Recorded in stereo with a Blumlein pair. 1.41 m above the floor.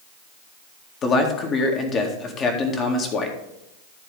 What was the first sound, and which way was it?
A man speaking, 25° left.